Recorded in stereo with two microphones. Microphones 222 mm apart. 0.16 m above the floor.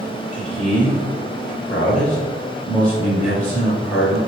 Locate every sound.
0.3 s a man speaking: 5° left (ahead or behind), 2.0 m